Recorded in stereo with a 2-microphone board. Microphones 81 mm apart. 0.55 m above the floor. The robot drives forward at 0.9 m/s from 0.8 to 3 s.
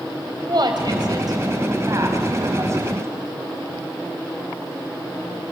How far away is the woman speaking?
About 2.5 m.